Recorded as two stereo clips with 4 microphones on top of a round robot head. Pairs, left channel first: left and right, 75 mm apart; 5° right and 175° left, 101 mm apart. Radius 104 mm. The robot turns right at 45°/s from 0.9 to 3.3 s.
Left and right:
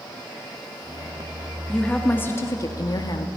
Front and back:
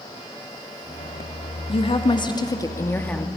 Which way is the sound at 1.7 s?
5° left.